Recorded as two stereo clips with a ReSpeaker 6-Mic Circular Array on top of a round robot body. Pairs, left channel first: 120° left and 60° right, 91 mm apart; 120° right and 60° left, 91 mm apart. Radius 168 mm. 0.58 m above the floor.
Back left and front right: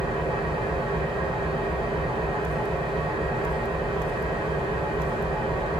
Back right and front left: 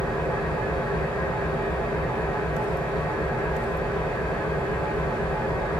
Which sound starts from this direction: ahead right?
An engine running, at 0.0 s.